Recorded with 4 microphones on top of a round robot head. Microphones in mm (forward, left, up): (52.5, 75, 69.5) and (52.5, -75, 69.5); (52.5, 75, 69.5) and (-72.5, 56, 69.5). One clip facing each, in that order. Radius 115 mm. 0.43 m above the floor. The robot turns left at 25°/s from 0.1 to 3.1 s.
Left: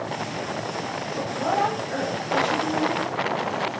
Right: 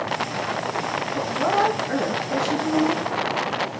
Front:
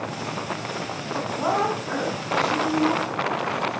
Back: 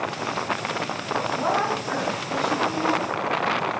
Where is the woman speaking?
70° right, 4.5 m; by 3.0 s 115° right, 4.5 m.